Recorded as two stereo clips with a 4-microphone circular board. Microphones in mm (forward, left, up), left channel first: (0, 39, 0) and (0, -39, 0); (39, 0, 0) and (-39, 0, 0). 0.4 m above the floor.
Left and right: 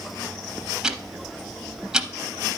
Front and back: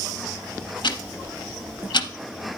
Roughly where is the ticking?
Ahead.